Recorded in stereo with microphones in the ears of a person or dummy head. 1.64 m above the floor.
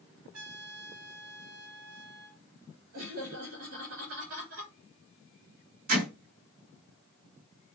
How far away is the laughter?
About 6.5 m.